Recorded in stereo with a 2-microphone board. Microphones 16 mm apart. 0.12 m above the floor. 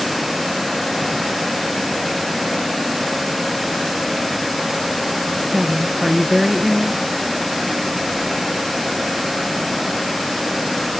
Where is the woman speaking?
20° right (ahead or behind), 1.4 m.